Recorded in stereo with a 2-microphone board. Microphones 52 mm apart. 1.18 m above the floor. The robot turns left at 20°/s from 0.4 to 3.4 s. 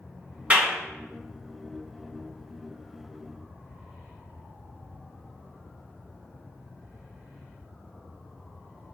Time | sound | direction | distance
0.5 | a clap | 25° right (ahead or behind) | 1.9 m